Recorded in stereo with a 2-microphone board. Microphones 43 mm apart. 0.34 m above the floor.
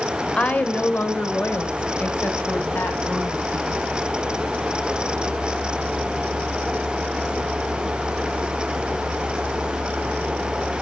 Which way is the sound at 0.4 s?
30° left (ahead or behind).